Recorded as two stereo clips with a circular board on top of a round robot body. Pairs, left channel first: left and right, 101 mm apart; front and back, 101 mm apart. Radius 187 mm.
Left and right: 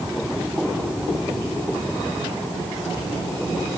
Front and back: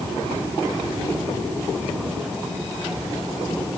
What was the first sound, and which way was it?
Only background noise.